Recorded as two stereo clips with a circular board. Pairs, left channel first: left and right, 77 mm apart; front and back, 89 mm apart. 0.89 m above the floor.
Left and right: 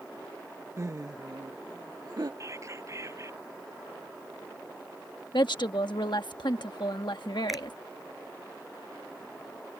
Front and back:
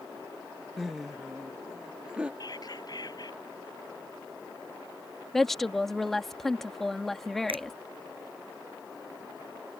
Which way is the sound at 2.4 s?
40° right.